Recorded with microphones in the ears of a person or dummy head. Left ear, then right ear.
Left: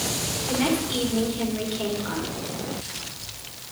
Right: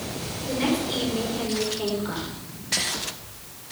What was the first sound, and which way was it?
A woman speaking, 5° left (ahead or behind).